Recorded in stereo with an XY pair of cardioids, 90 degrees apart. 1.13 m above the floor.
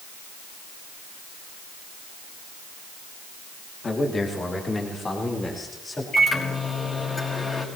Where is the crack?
No crack in this recording.